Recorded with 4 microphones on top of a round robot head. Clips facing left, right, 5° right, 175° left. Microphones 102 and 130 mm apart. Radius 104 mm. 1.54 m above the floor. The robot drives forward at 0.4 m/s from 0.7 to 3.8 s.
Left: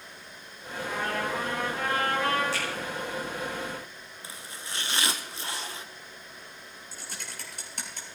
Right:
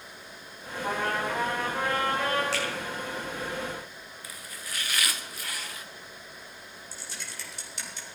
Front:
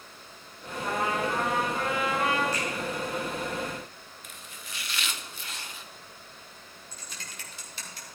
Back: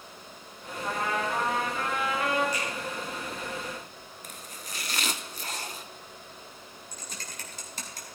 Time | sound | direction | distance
0.8 | a trumpet | 55° right | 7 m
2.5 | a finger snap | 105° right | 5 m
4.2 | chopping | 145° left | 0.7 m
6.9 | typing on a keyboard | 130° left | 3.5 m